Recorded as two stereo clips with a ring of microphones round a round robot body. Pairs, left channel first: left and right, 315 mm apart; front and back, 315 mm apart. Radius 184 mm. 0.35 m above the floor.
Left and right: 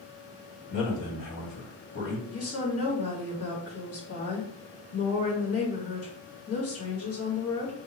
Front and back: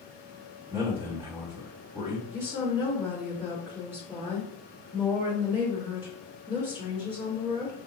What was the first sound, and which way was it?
A man speaking, 100° left.